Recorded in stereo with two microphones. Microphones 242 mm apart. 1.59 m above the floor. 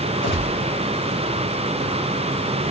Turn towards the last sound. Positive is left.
turn(degrees=55)  # may be behind; listen again after turning